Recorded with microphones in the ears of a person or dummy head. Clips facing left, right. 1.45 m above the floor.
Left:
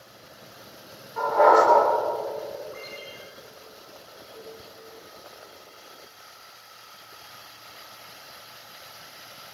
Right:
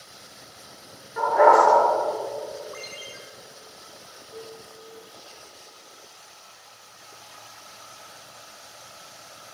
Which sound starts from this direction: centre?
A dog barking, at 1.2 s.